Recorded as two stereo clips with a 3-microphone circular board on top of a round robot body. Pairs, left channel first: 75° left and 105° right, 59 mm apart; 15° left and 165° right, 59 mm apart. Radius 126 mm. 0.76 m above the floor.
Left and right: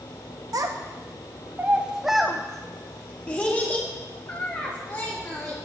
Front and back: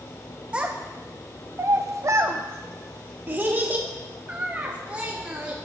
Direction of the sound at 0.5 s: 95° right.